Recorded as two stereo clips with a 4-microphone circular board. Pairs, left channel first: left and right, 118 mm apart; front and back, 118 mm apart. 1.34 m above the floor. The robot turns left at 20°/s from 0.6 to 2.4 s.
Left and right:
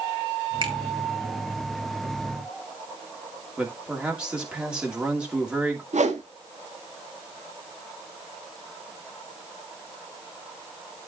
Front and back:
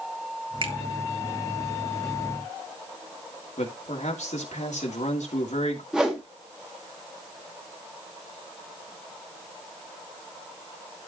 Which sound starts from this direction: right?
A whoosh, at 5.9 s.